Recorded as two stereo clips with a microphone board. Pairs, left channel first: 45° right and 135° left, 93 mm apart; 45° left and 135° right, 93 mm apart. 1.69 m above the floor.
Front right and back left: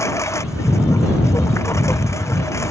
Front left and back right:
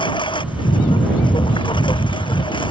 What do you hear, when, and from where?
0.0 s a lawn mower: 15° left